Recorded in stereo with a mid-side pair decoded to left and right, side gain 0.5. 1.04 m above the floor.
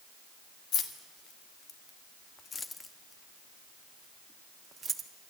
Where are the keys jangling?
65° left, 2 m; by 5.1 s 35° right, 1.8 m.